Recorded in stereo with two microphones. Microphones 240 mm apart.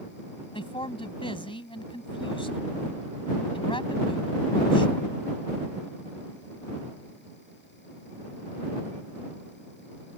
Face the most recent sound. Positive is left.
turn(degrees=20)  # may be behind; listen again after turning